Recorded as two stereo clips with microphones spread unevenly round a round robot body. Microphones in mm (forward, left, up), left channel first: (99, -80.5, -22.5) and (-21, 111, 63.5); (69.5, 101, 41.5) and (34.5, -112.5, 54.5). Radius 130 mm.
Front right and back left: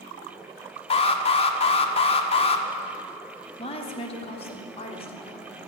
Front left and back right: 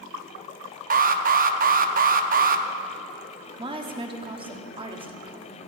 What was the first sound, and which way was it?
An alarm, 65° right.